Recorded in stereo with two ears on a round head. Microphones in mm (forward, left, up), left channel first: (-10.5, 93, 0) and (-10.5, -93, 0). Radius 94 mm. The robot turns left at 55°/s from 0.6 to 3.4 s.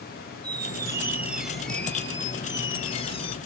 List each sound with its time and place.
0.4 s a squeak: 20° right (ahead or behind), 0.8 m; by 3.4 s 25° left (ahead or behind), 0.8 m